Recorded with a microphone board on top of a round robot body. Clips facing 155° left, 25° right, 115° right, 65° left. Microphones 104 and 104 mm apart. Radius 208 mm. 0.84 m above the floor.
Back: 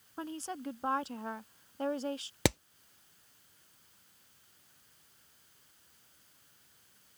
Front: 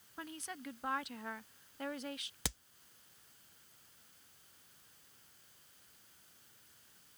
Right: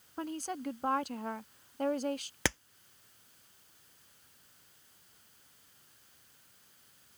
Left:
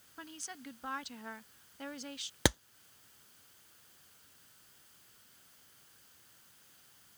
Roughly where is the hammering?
Behind left.